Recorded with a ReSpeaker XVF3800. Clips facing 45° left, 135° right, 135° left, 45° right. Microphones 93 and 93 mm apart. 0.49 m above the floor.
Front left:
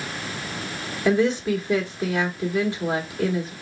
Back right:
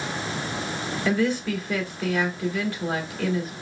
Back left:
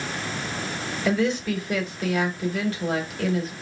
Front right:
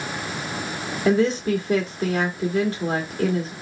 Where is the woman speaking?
10° right, 1.5 m.